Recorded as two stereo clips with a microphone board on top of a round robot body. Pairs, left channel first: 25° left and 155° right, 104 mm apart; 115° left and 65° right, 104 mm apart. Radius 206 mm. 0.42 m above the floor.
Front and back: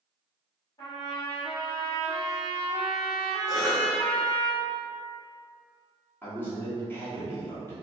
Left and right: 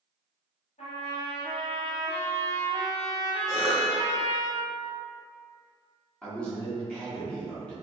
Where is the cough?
30° right, 1.0 m.